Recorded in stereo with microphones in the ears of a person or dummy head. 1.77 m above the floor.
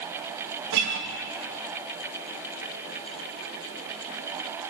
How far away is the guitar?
About 3 m.